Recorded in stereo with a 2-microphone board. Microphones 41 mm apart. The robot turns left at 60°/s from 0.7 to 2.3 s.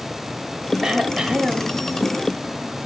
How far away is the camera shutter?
No camera shutter in this recording.